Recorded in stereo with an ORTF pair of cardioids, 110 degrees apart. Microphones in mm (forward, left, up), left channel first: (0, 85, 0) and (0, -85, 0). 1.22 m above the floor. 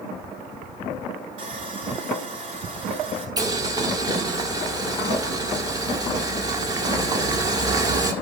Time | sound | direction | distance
1.4 | sawing | 50° right | 4 m
3.4 | boiling | 25° right | 1.6 m